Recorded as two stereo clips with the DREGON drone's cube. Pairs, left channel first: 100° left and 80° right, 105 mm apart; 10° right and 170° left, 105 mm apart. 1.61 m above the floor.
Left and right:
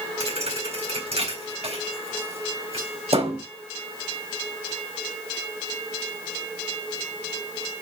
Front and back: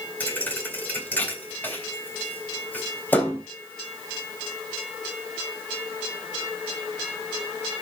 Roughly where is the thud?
Right.